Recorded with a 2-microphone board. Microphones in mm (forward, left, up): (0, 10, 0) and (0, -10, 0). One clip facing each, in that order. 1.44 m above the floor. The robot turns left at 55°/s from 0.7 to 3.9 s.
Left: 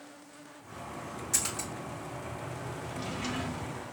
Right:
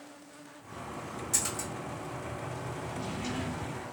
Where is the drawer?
70° left, 1.8 m; by 3.9 s 15° left, 1.8 m.